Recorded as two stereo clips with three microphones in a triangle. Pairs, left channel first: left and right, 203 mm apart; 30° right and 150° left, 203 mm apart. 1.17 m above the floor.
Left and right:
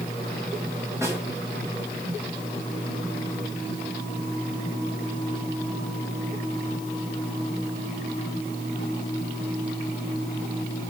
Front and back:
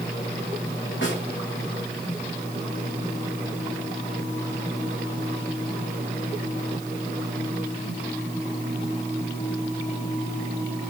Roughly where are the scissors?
No scissors in this recording.